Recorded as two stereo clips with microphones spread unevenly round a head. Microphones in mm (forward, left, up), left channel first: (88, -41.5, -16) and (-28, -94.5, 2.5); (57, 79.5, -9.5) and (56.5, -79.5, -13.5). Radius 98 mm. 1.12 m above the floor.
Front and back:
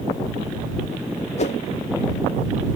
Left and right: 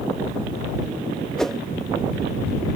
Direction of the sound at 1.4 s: 5° left.